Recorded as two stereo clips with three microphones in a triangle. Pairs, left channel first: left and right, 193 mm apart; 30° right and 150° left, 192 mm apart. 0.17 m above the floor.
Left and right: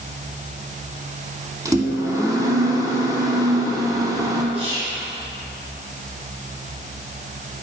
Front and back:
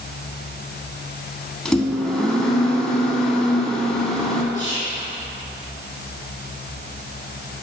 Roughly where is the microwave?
Right.